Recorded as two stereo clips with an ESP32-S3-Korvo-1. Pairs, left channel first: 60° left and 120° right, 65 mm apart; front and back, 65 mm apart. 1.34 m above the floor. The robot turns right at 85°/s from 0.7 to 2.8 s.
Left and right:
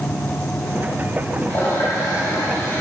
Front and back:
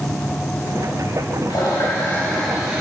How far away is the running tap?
About 2 m.